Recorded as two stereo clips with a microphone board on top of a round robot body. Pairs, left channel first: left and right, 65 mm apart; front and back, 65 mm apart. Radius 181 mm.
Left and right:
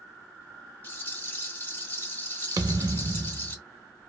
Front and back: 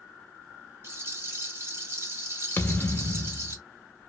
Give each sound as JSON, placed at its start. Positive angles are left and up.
{"t": 0.8, "sound": "a rattle", "azimuth_deg": 140, "distance_m": 1.6}
{"t": 2.6, "sound": "a thud", "azimuth_deg": -60, "distance_m": 0.6}